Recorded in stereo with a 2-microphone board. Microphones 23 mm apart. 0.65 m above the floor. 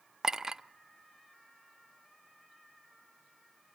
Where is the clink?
25° right (ahead or behind), 0.6 m.